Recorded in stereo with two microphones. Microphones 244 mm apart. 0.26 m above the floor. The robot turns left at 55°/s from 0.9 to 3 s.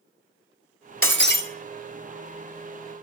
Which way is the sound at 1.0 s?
60° left (ahead or behind).